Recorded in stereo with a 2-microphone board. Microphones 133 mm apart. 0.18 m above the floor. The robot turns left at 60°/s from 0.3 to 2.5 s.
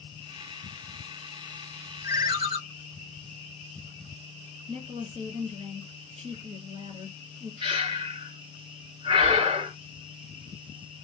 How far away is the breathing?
About 1.9 m.